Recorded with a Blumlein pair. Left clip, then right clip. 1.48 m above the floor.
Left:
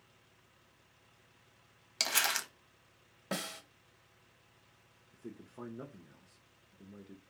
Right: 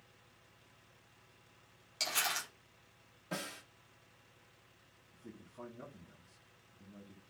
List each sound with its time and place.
2.0 s crumpling: 35° left, 0.8 m
3.3 s a snare drum: 40° left, 0.7 m
5.1 s a man speaking: 60° left, 0.6 m